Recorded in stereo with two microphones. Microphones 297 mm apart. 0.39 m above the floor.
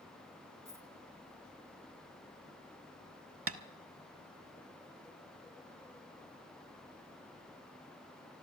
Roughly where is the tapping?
Right.